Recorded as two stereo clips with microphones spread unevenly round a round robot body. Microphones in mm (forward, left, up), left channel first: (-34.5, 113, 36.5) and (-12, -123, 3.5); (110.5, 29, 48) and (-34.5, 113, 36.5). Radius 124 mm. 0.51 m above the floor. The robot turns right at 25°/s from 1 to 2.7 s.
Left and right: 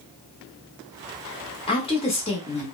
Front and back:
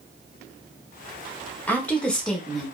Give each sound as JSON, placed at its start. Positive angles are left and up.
{"t": 1.7, "sound": "a woman speaking", "azimuth_deg": 45, "distance_m": 0.7}